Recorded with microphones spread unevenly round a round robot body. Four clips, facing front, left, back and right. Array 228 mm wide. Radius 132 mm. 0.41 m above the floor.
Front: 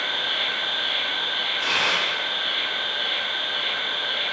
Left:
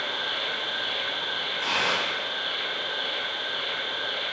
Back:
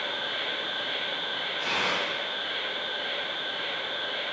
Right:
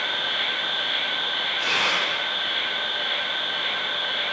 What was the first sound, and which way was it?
An insect, 145° left.